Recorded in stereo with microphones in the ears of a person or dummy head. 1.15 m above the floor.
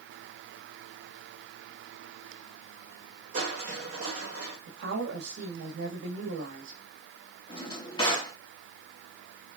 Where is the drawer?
25° left (ahead or behind), 1.4 m.